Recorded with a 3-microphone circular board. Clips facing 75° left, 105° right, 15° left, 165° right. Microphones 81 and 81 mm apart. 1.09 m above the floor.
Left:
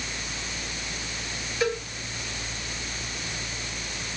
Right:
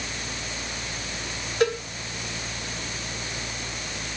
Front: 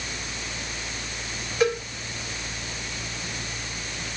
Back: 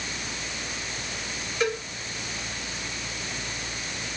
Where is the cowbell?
70° right, 7.5 m.